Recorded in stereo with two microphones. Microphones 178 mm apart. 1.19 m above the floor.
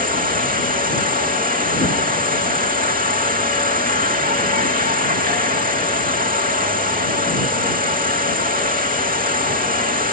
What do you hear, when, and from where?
0.0 s an insect: 50° right (ahead or behind)